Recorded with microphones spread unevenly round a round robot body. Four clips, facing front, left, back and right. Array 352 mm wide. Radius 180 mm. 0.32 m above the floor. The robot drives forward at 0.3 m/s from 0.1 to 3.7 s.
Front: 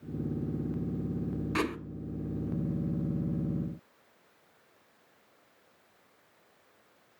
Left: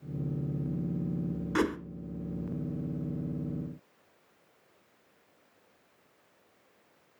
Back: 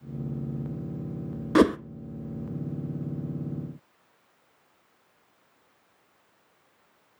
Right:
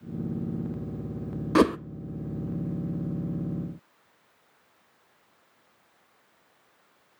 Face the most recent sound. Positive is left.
turn(degrees=-160)